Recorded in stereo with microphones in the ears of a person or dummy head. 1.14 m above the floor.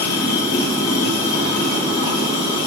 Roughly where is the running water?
Left.